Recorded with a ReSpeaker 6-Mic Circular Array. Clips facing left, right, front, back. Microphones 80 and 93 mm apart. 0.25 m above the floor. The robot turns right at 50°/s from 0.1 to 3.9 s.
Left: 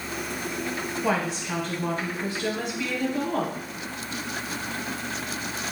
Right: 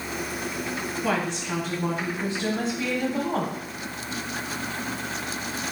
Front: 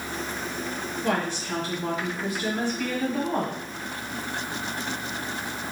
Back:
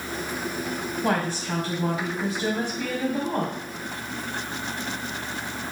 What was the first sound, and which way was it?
A woman speaking, 160° left.